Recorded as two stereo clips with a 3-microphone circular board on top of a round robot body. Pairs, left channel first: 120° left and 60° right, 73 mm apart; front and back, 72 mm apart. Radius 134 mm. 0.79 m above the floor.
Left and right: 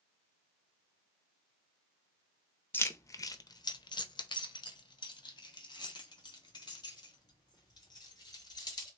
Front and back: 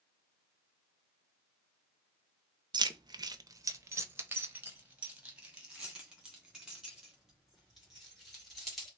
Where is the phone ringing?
No phone ringing in this recording.